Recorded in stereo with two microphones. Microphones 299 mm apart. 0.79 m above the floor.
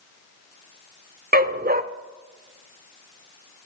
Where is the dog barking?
30° right (ahead or behind), 0.7 m.